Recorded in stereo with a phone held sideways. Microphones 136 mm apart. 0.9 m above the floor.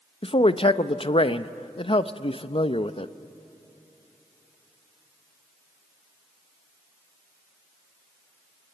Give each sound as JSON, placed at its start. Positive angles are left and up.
{"t": 0.2, "sound": "a man speaking", "side_deg": 45, "distance_m": 0.6}